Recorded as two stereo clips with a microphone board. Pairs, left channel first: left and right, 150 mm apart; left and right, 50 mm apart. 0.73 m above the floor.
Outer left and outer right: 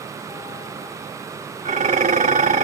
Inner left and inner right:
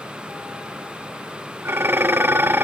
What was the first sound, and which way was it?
Dishes clattering, 60° right (ahead or behind).